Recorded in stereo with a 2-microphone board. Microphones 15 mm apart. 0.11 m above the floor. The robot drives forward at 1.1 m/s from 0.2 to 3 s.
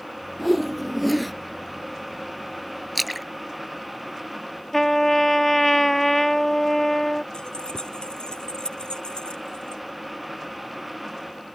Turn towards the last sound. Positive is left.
turn(degrees=80)